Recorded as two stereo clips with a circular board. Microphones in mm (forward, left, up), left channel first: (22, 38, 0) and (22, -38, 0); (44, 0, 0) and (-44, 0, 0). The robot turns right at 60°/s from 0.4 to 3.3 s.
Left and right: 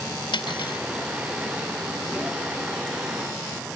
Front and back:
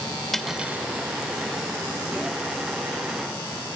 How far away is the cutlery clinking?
About 1.9 m.